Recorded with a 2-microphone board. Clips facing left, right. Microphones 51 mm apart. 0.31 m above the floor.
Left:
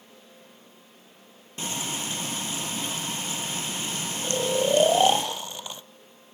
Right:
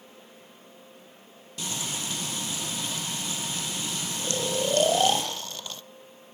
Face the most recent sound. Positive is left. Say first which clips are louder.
# left 4 dB
turn(degrees=15)  # may be behind; listen again after turning